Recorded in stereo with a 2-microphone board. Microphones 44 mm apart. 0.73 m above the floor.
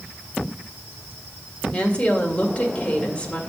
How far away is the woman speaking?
About 1.9 m.